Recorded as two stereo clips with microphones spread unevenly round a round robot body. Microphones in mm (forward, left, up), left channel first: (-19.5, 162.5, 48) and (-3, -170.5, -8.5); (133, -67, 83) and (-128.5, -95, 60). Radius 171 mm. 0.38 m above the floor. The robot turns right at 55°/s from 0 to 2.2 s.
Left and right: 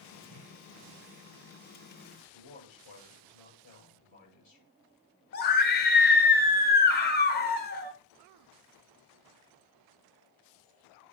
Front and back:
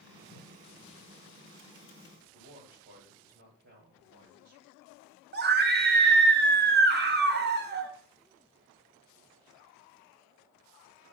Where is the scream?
155° left, 1.1 m.